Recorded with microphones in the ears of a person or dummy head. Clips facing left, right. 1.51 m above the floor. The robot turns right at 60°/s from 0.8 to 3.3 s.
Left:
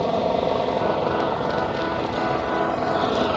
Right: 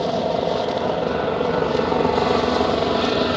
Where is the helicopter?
175° right; by 3.4 s 25° right.